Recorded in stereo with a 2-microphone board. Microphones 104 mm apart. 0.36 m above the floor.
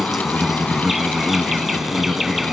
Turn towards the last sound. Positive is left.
turn(degrees=0)  # may be behind; listen again after turning